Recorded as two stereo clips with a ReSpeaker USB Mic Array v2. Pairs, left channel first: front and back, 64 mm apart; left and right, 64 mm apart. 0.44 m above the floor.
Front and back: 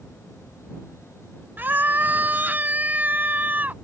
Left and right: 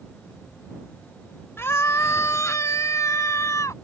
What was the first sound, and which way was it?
A scream, 125° left.